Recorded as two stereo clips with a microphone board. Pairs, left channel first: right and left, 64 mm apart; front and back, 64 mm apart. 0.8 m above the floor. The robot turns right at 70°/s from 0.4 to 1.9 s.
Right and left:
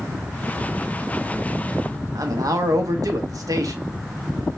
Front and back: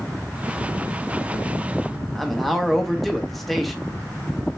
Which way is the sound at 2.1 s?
90° left.